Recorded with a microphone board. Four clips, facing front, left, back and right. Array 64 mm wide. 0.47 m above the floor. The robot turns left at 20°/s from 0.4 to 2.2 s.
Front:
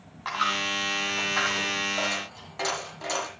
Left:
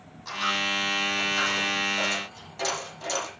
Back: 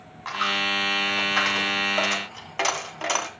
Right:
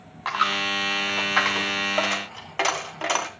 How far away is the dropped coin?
About 1.7 m.